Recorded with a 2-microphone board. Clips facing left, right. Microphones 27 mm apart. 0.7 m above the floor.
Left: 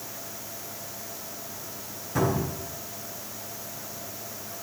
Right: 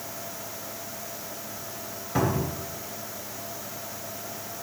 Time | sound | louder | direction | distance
2.1 | a cupboard door | even | 30° right (ahead or behind) | 2.5 m